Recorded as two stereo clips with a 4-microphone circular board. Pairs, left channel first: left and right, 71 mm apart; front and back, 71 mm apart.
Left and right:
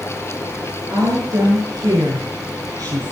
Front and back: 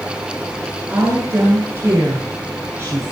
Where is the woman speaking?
120° right, 7.5 m; by 3.1 s 125° right, 8 m.